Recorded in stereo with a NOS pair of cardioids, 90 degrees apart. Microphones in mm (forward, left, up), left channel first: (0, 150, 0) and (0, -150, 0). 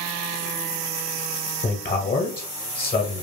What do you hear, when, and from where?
1.6 s a man speaking: 30° left, 1.0 m